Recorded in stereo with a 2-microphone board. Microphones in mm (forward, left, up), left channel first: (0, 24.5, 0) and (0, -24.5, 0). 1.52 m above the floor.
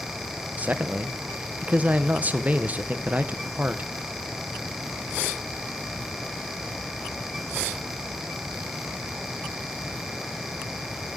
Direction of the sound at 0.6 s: 30° right (ahead or behind).